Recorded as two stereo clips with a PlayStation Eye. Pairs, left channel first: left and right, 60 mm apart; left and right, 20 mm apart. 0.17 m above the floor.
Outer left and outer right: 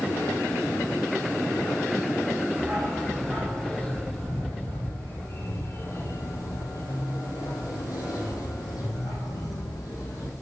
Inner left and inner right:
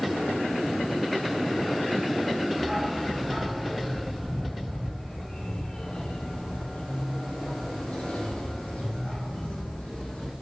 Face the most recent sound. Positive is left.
turn(degrees=75)  # may be behind; listen again after turning